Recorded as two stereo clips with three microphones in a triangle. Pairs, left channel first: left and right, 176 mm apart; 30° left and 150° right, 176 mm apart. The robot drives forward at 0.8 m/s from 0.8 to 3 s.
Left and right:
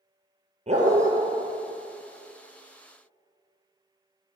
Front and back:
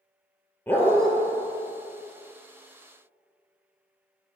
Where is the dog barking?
50° right, 1.0 m; by 1.1 s 65° right, 0.9 m.